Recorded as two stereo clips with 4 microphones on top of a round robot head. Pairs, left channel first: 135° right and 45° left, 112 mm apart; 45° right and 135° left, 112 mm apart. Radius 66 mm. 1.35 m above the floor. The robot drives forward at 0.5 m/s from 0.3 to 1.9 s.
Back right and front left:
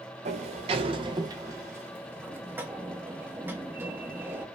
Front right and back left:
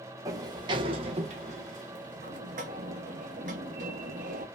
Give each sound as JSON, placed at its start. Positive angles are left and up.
{"t": 0.2, "sound": "a sliding door", "azimuth_deg": 75, "distance_m": 1.0}